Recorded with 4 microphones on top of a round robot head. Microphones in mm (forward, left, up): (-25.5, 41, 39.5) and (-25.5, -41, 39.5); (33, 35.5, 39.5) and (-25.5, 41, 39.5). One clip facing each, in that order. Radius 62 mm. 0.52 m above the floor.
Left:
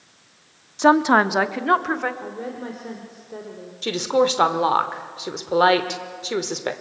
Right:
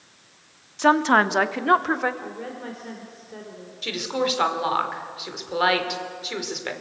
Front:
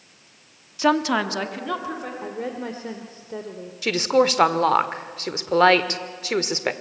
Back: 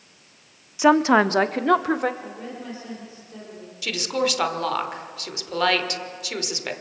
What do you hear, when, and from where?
0.8 s a woman speaking: 115° left, 0.9 m; by 2.1 s 175° right, 1.7 m
2.2 s a woman speaking: 20° left, 2 m
3.8 s a woman speaking: 40° left, 1.7 m